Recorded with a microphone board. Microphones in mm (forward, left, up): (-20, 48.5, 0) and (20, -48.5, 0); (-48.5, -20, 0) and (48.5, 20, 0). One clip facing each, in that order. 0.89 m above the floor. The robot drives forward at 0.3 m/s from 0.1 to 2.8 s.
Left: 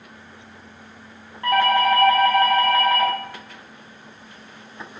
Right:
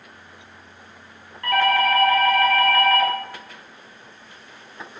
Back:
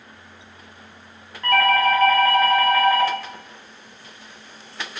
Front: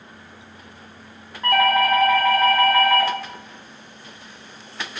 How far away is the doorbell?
About 0.7 m.